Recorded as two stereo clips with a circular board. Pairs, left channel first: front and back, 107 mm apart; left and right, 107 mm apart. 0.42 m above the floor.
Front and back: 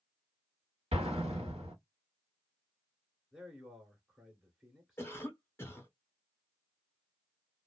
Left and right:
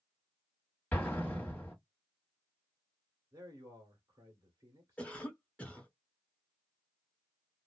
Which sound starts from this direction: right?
A man speaking, at 3.3 s.